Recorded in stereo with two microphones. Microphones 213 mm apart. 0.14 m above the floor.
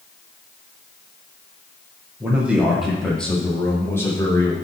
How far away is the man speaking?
About 5.5 m.